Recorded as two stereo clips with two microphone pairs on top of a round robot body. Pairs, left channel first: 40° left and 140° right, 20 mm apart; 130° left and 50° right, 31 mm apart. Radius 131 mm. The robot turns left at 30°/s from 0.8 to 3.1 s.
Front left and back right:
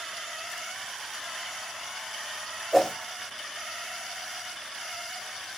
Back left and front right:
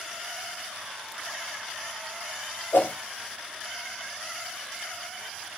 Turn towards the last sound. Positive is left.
turn(degrees=115)